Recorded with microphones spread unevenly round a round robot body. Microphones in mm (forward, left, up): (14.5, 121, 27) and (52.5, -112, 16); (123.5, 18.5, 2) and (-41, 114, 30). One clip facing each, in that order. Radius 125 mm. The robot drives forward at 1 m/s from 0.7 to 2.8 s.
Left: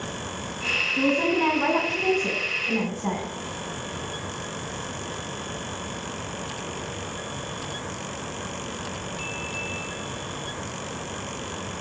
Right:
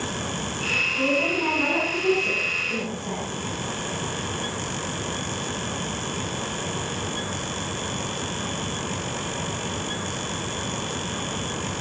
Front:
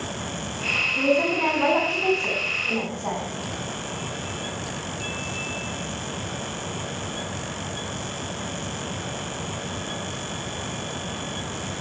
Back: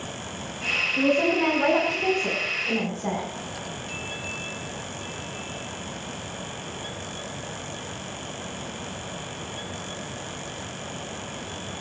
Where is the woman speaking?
65° left, 6 m; by 3.3 s 85° left, 5.5 m.